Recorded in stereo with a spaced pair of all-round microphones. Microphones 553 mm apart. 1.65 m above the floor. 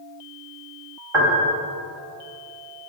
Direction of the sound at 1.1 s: 70° right (ahead or behind).